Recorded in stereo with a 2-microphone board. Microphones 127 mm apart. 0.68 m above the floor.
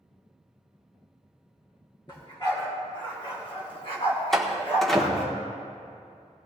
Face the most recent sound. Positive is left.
turn(degrees=0)  # may be behind; listen again after turning